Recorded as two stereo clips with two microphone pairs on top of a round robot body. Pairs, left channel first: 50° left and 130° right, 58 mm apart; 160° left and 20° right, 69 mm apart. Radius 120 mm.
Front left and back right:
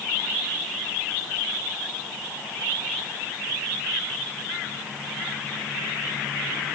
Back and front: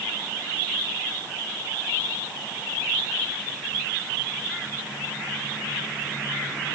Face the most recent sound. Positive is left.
No sound to turn to.